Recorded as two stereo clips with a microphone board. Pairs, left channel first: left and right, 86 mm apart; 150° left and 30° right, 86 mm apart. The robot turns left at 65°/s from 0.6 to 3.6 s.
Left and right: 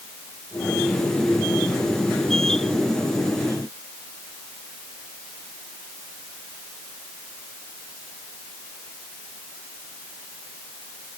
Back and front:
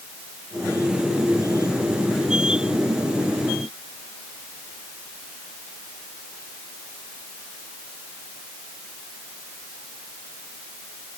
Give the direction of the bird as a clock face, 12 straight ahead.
No bird in this recording.